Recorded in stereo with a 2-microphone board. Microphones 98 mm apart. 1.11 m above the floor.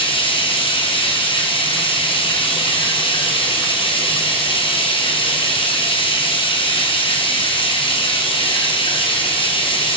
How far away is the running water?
About 5 m.